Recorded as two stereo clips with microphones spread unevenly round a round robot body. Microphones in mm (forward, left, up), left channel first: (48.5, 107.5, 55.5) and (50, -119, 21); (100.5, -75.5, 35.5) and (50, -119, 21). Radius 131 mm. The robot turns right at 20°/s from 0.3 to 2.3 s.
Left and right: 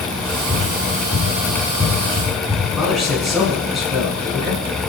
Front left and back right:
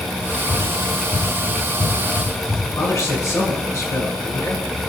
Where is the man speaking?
Straight ahead, 7 m.